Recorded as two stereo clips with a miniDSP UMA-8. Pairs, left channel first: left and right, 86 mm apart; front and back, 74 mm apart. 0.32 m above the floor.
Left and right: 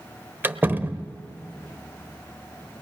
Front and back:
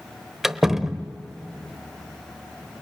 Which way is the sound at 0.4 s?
100° right.